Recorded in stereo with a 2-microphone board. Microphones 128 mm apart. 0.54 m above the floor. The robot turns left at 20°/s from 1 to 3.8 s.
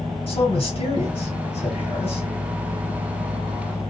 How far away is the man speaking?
About 1.7 m.